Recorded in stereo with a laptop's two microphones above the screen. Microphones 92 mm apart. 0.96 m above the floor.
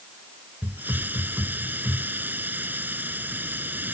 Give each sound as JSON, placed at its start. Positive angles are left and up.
{"t": 0.6, "sound": "a hiss", "side_deg": -20}